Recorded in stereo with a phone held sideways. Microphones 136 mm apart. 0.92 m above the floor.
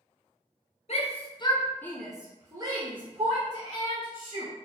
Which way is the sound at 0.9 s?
50° left (ahead or behind).